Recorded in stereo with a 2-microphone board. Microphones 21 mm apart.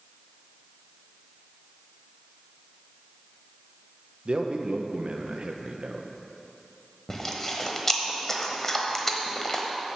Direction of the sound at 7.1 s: 20° left (ahead or behind).